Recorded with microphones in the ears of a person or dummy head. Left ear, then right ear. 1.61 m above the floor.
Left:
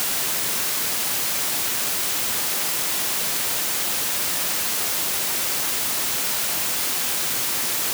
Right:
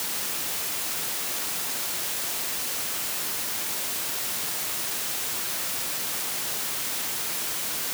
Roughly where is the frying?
I don't hear frying.